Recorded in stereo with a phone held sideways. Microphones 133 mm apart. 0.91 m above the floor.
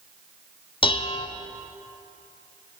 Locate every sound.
0.8 s dishes clattering: 40° left (ahead or behind), 0.6 m